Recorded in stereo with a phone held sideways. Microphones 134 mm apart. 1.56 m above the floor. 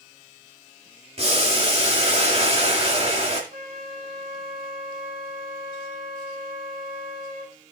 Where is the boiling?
45° right (ahead or behind), 2.5 m.